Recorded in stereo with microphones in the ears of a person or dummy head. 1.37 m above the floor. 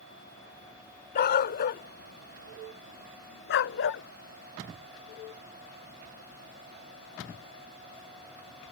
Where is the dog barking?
55° left (ahead or behind); by 4.0 s 70° left (ahead or behind).